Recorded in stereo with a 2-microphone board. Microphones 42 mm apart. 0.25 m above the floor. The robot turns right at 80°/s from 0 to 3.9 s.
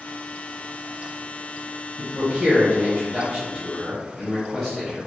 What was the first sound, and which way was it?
A man speaking, 170° right.